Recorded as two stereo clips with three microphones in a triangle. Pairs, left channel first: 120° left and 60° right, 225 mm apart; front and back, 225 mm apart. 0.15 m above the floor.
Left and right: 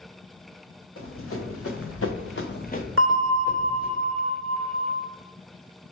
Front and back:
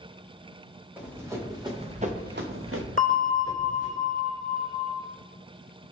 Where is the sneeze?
I don't hear a sneeze.